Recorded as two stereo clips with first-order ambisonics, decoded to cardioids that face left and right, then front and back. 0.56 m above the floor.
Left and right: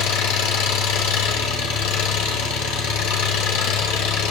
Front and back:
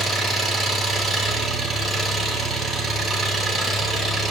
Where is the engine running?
85° left, 2.5 m.